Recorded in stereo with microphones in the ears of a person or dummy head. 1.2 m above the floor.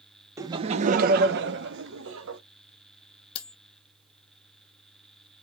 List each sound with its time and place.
0.4 s laughter: 15° right (ahead or behind), 0.5 m; by 2.4 s 75° right (ahead or behind), 1.3 m
3.4 s cutlery clinking: 35° left (ahead or behind), 0.5 m